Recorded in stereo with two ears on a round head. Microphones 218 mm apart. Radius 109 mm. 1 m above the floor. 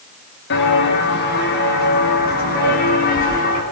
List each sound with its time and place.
0.5 s footsteps: 50° left (ahead or behind), 7 m; by 3.6 s 35° left (ahead or behind), 8 m